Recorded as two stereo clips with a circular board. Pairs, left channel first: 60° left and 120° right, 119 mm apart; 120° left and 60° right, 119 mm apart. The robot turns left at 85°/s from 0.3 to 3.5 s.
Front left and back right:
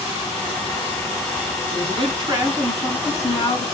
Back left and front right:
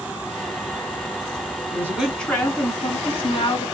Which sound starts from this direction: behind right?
A woman speaking, at 1.7 s.